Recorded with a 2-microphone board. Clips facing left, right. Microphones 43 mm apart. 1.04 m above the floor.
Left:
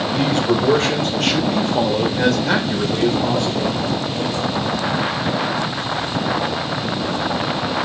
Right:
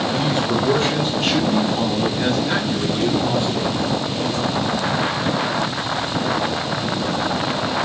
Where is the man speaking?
55° left (ahead or behind), 3.5 m; by 3.8 s 85° left, 3.5 m.